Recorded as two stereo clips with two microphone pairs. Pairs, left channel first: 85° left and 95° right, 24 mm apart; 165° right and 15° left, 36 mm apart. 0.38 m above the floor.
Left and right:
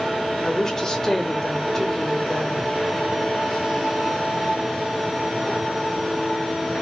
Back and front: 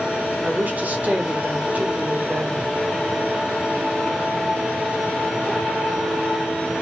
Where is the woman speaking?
20° left, 1.1 m.